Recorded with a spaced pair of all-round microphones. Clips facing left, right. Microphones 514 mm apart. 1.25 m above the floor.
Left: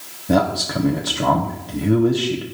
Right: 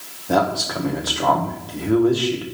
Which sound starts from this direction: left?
A man speaking, at 0.3 s.